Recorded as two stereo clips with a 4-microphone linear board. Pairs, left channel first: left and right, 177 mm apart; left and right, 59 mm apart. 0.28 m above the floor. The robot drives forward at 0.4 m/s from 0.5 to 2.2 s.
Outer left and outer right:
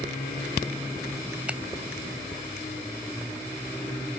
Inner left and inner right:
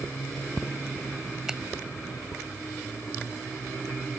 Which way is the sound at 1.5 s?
5° right (ahead or behind).